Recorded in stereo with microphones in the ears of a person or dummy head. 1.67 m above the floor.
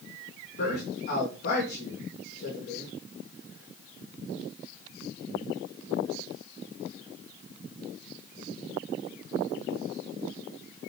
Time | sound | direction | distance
0.6 | a man speaking | 50° left (ahead or behind) | 2.5 m